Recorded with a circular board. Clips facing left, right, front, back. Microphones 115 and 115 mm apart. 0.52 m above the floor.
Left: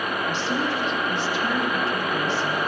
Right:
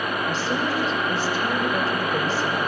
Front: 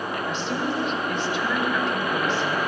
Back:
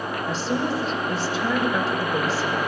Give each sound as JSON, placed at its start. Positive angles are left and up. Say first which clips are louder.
{"t": 0.3, "sound": "a woman speaking", "louder": "even, back 4 dB", "azimuth_deg": -130, "distance_m": 2.5}